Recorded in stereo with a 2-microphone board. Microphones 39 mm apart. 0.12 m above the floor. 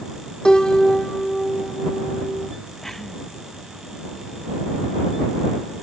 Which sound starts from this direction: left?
A piano, at 0.5 s.